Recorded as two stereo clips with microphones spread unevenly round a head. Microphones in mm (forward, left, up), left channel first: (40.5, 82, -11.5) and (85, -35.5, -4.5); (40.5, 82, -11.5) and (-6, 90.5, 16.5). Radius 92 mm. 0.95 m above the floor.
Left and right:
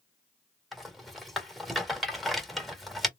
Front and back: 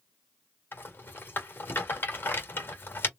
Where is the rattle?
20° left, 1.6 m.